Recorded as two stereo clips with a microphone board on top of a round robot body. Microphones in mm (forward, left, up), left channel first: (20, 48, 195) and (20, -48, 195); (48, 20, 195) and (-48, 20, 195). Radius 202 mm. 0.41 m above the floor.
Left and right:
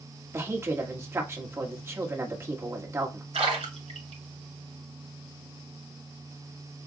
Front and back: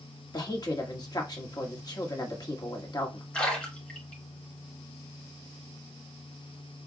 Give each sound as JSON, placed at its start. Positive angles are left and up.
{"t": 0.3, "sound": "a woman speaking", "azimuth_deg": -35, "distance_m": 1.9}
{"t": 3.3, "sound": "a splash", "azimuth_deg": -75, "distance_m": 3.0}